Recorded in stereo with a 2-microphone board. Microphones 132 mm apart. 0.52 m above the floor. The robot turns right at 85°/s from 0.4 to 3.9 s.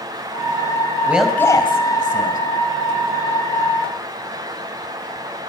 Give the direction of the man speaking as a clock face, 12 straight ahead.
1 o'clock.